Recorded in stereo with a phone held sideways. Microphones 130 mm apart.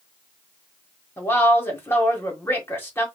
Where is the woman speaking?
15° left (ahead or behind), 2.0 m.